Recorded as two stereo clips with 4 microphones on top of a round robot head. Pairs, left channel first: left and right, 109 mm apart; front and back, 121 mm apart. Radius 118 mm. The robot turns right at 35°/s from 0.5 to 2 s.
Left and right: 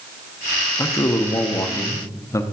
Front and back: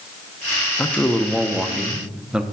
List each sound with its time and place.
0.8 s a man speaking: 65° left, 0.8 m; by 2.4 s 105° left, 0.8 m